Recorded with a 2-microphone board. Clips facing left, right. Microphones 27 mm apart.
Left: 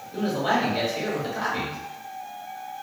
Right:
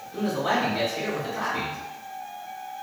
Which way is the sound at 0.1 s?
20° left (ahead or behind).